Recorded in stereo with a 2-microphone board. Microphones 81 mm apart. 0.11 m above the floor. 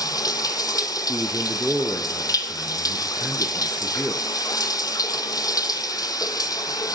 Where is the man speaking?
10° right (ahead or behind), 1.2 m.